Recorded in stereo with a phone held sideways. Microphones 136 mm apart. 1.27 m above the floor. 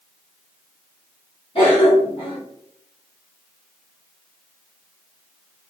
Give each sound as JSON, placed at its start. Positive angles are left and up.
{"t": 1.6, "sound": "a cough", "side_deg": 45, "distance_m": 1.0}